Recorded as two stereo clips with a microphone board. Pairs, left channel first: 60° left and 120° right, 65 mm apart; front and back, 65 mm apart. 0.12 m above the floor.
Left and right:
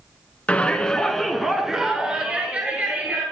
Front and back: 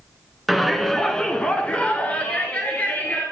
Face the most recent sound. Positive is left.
turn(degrees=-60)